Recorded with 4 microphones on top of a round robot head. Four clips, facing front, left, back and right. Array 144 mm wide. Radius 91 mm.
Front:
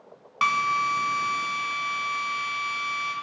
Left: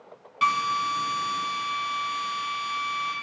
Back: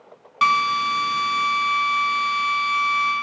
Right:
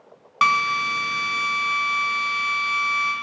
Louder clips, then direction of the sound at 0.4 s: Right 3 dB, back 5 dB; 90° right.